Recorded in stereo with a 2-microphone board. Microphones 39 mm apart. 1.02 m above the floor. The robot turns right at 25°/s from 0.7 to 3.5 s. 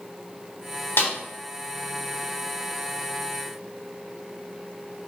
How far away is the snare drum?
About 3 m.